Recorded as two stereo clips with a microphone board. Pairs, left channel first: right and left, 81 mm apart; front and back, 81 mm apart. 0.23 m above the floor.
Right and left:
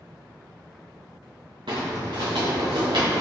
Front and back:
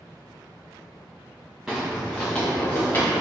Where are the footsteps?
95° left, 1.4 m; by 3.2 s 55° left, 1.7 m.